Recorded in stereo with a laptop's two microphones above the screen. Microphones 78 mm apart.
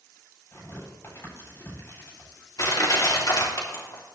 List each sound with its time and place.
0.5 s tearing paper: 35° left (ahead or behind), 7.5 m
2.6 s crushing: 50° left (ahead or behind), 2.5 m